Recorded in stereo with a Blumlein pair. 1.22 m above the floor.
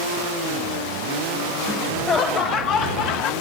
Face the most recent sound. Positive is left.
turn(degrees=40)